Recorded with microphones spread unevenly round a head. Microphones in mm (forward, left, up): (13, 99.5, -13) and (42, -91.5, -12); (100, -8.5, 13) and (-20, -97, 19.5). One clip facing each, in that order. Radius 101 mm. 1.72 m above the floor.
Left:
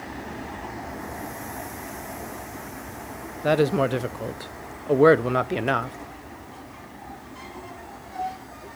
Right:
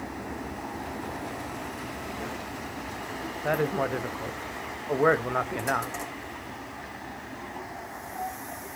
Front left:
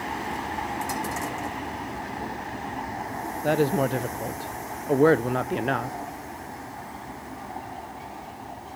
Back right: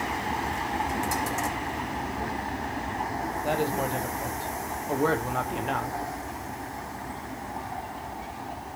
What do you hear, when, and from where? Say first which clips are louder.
3.4 s a woman speaking: left 7 dB, front left 6 dB; 80° left, 0.6 m